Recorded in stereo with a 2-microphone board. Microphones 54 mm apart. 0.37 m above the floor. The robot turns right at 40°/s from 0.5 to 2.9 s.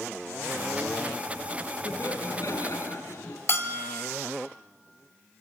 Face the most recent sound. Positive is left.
turn(degrees=55)  # may be behind; listen again after turning